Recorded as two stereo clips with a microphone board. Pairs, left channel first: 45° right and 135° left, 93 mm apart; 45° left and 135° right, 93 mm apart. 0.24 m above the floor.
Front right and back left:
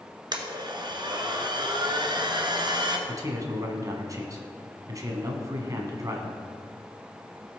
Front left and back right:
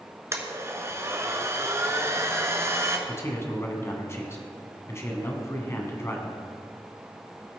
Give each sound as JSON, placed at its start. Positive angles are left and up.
{"t": 0.3, "sound": "a blender", "azimuth_deg": 165, "distance_m": 1.3}
{"t": 3.1, "sound": "a man speaking", "azimuth_deg": 95, "distance_m": 1.8}